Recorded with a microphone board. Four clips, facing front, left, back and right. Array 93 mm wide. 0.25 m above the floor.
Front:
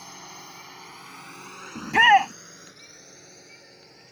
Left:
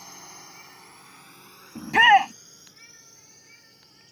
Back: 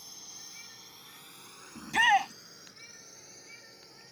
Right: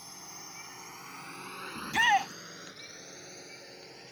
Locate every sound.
0.0 s a drone: 20° left; by 4.1 s 65° right
1.8 s a shout: 50° left